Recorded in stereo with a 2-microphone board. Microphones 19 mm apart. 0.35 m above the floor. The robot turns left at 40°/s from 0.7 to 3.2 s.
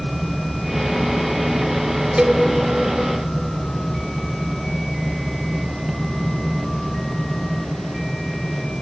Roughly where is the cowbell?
Right.